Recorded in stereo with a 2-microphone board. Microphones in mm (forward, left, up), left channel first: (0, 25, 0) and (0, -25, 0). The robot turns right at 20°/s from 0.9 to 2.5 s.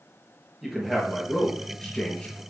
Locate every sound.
0.6 s a man speaking: straight ahead, 3.5 m; by 2.4 s 30° left, 3.5 m